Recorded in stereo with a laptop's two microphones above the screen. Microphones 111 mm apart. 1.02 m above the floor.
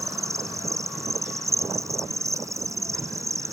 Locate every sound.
0.0 s an insect: 30° right (ahead or behind)